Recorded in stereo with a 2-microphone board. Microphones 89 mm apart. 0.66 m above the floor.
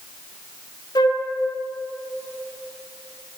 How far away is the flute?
About 0.7 m.